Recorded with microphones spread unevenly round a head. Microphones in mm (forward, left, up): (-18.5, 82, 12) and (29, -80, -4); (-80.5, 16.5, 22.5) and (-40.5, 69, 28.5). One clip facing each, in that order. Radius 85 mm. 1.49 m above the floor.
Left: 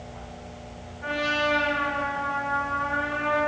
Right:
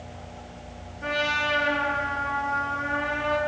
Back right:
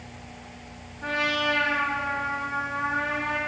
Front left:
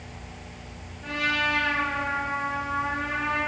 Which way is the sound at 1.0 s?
100° right.